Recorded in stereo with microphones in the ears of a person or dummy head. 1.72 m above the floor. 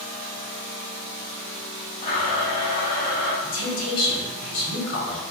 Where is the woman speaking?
70° left (ahead or behind), 1.4 m.